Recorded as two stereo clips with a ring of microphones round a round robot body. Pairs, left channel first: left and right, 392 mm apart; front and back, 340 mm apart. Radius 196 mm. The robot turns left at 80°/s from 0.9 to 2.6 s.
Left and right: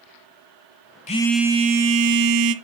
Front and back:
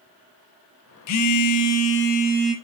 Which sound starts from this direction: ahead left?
A phone buzzing, at 1.1 s.